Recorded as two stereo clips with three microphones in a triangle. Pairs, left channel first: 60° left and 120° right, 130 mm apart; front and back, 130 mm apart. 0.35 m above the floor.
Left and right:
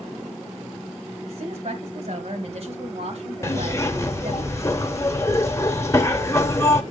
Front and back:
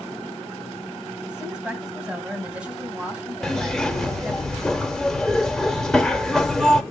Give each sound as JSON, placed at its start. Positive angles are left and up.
{"t": 1.3, "sound": "a woman speaking", "azimuth_deg": -100, "distance_m": 2.0}
{"t": 3.4, "sound": "a zipper", "azimuth_deg": 85, "distance_m": 0.9}